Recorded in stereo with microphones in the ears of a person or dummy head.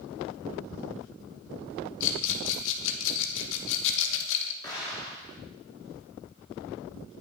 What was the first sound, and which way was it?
A rattle, 70° left (ahead or behind).